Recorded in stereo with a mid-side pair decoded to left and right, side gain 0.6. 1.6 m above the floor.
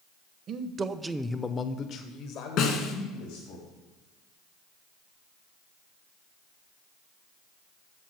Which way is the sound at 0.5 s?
50° right.